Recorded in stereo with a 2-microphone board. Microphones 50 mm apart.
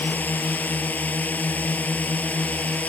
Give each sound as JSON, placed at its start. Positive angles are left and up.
{"t": 0.0, "sound": "a drone", "side_deg": 35}